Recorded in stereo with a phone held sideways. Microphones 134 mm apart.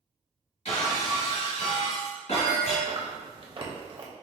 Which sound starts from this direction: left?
Breaking glass, at 0.7 s.